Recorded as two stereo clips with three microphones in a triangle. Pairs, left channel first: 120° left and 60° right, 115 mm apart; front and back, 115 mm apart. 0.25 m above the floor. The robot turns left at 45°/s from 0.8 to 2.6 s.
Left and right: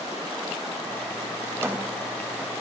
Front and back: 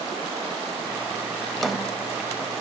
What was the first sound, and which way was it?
A drawer, 75° right.